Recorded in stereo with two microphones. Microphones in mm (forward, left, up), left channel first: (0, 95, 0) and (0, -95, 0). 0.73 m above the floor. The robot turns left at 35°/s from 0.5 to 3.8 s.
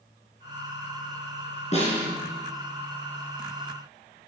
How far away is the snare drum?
About 4 m.